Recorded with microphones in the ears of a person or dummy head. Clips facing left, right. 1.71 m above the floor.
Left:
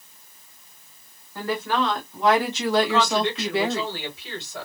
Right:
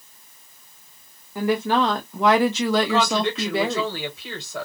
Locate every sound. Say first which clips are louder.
1.4 s a woman speaking: right 4 dB; 10° right (ahead or behind), 0.7 m; by 3.8 s 80° right, 1.2 m
2.8 s a woman speaking: right 1 dB; 70° right (ahead or behind), 1.5 m